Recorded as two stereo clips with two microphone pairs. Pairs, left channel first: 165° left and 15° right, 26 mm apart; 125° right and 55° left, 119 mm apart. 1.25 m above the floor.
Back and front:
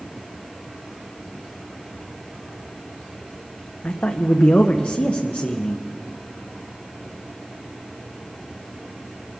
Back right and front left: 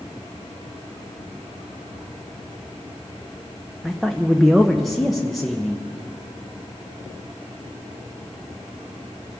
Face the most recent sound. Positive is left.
turn(degrees=145)